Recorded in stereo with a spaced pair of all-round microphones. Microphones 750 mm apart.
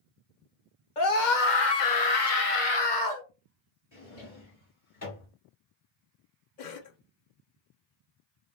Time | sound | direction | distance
1.0 | a scream | 85° left | 1.2 m
3.9 | a drawer | 50° left (ahead or behind) | 2 m
6.6 | a cough | 75° left (ahead or behind) | 0.8 m